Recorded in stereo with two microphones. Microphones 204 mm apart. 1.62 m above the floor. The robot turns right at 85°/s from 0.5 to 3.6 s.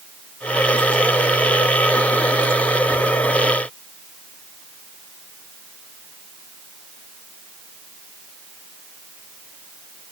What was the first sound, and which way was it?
Only background noise.